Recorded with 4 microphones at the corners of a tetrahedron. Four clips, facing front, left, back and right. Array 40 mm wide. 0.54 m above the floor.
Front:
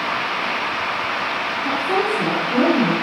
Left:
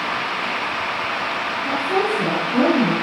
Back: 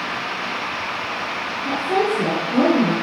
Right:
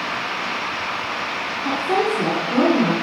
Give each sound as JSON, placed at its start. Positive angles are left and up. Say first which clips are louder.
{"t": 1.6, "sound": "a woman speaking", "louder": "right 1 dB, back 1 dB", "azimuth_deg": -70, "distance_m": 4.5}